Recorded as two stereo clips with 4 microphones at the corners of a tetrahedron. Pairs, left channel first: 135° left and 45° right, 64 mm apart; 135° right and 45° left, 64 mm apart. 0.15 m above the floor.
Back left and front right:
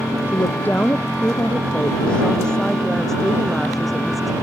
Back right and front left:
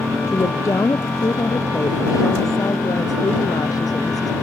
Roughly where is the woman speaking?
Behind.